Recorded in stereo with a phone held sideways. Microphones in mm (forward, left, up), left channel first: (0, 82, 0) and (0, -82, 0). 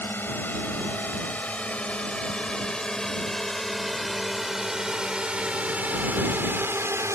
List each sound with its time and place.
0.0 s a drone: 10° left (ahead or behind); by 7.2 s 15° right (ahead or behind)